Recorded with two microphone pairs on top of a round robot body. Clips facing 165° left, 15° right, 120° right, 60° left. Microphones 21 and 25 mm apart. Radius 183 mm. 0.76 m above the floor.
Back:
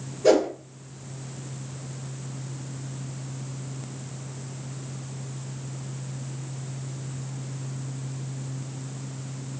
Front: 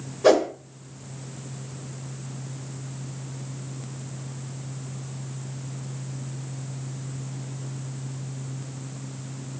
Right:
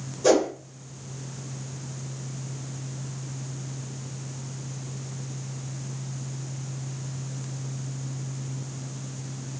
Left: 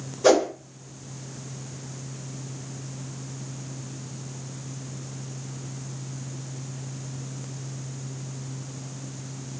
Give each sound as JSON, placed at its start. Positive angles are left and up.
{"t": 0.2, "sound": "a whoosh", "azimuth_deg": 5, "distance_m": 0.8}